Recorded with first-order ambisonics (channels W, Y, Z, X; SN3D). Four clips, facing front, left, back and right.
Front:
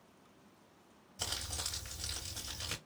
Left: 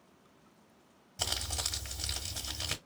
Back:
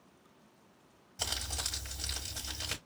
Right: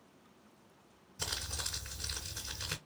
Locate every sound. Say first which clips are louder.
1.2 s crumpling: left 4 dB, back 3 dB; 105° left, 1.7 m